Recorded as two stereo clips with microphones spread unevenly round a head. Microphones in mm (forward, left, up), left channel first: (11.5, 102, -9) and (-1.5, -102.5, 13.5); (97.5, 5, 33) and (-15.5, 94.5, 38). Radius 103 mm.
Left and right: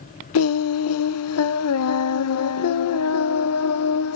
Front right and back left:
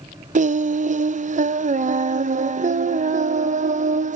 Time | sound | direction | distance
0.3 | singing | 100° left | 0.5 m